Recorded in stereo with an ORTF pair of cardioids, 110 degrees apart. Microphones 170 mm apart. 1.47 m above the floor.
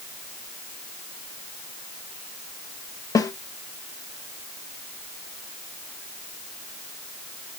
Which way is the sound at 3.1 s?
20° left.